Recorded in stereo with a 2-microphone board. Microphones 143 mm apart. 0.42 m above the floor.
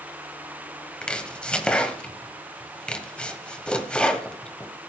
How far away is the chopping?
About 1.4 m.